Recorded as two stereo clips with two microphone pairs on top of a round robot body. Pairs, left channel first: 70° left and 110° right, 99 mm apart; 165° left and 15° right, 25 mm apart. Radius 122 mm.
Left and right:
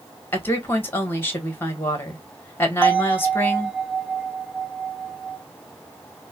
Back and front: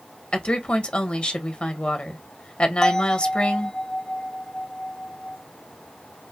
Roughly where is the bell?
Behind.